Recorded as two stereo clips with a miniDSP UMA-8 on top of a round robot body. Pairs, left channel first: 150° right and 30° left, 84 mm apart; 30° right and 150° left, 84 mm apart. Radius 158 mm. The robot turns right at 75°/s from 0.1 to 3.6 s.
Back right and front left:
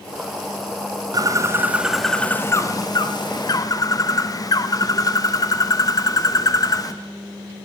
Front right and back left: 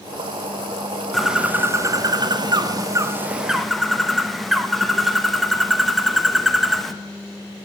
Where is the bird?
55° left, 1.1 m; by 6.9 s 120° right, 1.1 m.